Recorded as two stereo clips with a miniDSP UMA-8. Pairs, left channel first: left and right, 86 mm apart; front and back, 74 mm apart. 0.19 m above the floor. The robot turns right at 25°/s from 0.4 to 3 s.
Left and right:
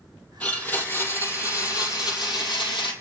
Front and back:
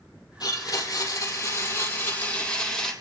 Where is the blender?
20° left, 4.5 m; by 2.9 s 80° left, 4.5 m.